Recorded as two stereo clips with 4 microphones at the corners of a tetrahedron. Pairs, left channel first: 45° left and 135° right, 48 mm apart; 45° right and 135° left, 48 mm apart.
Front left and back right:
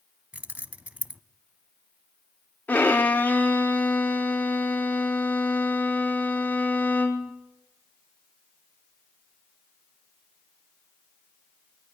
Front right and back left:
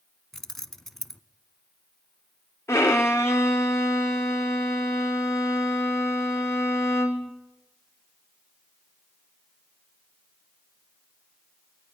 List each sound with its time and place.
0.3 s keys jangling: 120° right, 0.9 m
2.7 s a violin: 15° right, 2.5 m